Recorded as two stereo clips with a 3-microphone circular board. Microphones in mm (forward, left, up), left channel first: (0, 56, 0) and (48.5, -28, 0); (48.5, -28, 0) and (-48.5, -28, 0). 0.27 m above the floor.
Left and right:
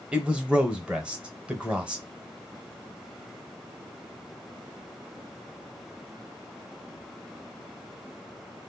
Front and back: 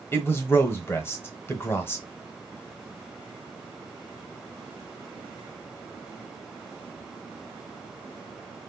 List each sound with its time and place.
0.1 s a man speaking: 5° left, 1.0 m